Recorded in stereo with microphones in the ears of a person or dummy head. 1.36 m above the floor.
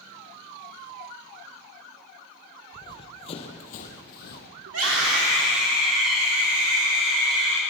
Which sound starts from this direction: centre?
Running footsteps, at 2.7 s.